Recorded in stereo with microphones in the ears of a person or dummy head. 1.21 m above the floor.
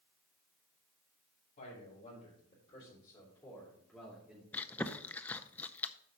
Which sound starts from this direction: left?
A man speaking, at 1.6 s.